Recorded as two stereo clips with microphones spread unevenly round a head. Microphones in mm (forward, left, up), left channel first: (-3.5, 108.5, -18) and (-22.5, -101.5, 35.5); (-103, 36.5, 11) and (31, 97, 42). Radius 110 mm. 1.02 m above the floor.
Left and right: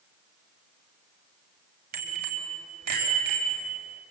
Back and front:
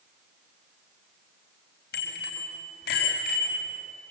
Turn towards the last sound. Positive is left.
turn(degrees=-140)